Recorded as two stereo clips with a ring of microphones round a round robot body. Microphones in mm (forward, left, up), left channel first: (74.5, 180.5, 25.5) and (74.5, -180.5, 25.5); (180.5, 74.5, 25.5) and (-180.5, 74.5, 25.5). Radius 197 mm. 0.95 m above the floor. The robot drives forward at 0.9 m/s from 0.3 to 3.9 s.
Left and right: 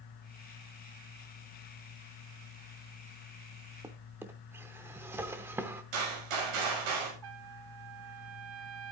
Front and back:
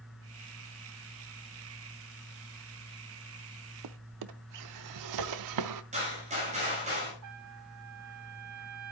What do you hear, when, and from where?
3.8 s a drawer: 170° right, 0.6 m; by 5.8 s 175° right, 0.7 m
5.9 s a gunshot: 105° right, 6.5 m
7.2 s a trumpet: 130° right, 1.5 m